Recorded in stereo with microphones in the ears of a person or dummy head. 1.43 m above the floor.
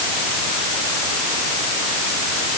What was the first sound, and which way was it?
Only background noise.